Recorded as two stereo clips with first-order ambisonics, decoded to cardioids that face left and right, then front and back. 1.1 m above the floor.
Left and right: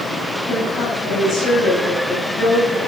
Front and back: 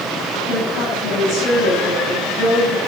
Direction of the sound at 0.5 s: 35° left.